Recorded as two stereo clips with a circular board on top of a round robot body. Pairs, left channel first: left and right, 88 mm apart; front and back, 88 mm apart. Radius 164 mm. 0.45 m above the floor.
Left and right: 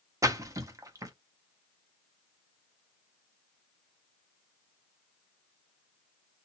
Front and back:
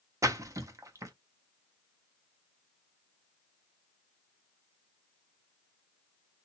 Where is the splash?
135° right, 1.2 m.